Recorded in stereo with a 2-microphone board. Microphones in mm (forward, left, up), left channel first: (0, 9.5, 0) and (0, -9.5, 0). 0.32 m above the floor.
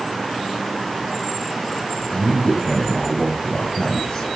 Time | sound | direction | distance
2.1 | a man speaking | 50° left (ahead or behind) | 2 m